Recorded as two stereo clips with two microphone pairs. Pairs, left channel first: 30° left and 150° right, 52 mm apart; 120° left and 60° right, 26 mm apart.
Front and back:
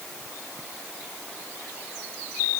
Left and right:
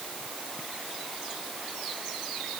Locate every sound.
Only background noise.